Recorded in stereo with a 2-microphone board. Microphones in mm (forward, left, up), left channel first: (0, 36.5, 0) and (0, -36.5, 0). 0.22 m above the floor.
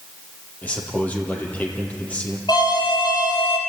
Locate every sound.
0.6 s a man speaking: 20° left (ahead or behind), 5 m
2.5 s an alarm: 75° left (ahead or behind), 6 m